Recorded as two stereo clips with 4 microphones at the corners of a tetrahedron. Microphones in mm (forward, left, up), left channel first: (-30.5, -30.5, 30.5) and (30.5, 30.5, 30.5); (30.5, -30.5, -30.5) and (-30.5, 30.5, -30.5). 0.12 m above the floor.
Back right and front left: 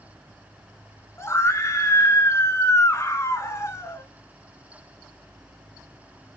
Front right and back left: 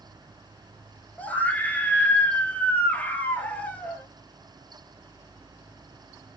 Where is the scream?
105° right, 1.5 m.